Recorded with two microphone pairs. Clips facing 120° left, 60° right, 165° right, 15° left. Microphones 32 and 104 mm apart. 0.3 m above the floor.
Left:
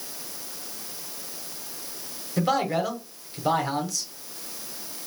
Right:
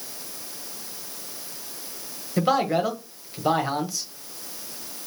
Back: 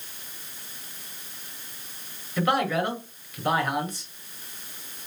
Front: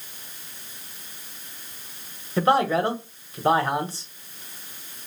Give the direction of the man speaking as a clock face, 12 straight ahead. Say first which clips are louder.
Right 2 dB, front 4 dB; 12 o'clock.